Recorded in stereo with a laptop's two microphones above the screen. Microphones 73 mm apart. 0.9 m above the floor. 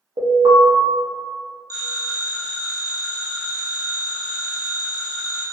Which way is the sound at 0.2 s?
65° right (ahead or behind).